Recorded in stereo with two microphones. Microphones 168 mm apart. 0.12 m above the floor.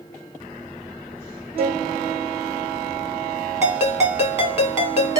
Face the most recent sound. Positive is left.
turn(degrees=-20)  # may be behind; listen again after turning